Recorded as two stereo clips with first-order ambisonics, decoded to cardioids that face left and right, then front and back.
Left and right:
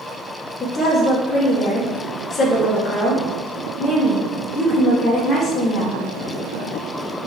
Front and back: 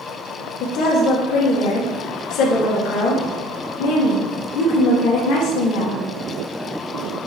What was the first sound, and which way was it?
A woman speaking, 20° left.